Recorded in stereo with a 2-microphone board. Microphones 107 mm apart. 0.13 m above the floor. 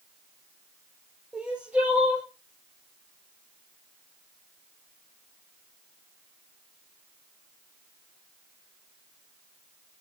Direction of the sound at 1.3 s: 10° right (ahead or behind).